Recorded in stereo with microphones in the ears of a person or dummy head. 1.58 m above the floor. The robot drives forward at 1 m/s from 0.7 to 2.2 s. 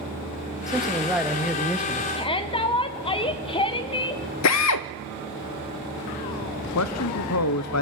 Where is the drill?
75° left (ahead or behind), 0.6 m.